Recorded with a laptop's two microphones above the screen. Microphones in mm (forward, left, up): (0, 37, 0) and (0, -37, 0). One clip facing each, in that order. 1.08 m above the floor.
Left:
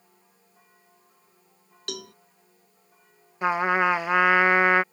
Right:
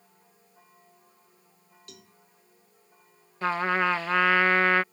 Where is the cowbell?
85° left.